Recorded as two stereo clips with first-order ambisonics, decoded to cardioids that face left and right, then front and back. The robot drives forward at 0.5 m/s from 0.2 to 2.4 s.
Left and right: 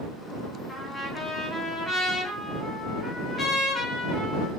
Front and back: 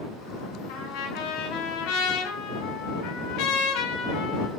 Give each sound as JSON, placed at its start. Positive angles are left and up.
{"t": 0.7, "sound": "a trumpet", "azimuth_deg": 5, "distance_m": 4.0}